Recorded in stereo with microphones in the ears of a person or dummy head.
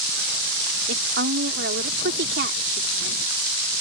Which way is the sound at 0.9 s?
65° right (ahead or behind).